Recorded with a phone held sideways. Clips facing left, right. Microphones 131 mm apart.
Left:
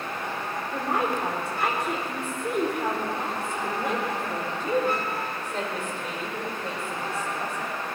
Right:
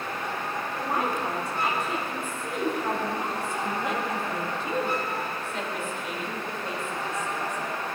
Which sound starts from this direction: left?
A woman speaking, at 0.7 s.